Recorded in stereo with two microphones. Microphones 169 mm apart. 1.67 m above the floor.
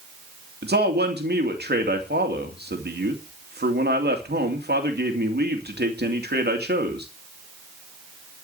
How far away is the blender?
I don't hear a blender.